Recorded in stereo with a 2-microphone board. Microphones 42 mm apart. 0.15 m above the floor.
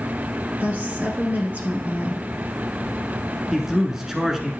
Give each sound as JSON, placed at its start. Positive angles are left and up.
{"t": 0.6, "sound": "a woman speaking", "side_deg": -40, "distance_m": 2.0}
{"t": 3.5, "sound": "a man speaking", "side_deg": -10, "distance_m": 1.3}